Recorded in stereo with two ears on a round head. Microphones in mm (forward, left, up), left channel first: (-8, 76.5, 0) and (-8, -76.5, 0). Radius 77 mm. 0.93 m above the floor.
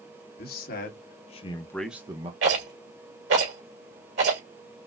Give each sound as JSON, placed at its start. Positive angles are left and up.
{"t": 0.4, "sound": "a man speaking", "side_deg": 55, "distance_m": 1.7}
{"t": 2.4, "sound": "a rattle", "side_deg": -80, "distance_m": 3.0}